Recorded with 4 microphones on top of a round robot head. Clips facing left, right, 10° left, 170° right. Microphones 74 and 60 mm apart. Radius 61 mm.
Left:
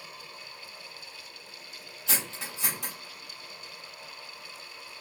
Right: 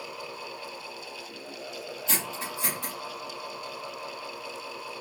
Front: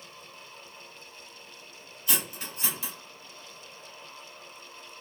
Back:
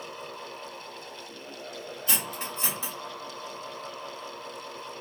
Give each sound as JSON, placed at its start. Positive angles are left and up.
{"t": 2.1, "sound": "cutlery clinking", "azimuth_deg": 125, "distance_m": 2.0}